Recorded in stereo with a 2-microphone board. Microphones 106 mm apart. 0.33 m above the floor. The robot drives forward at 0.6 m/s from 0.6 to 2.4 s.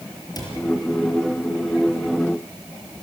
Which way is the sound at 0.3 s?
40° left (ahead or behind).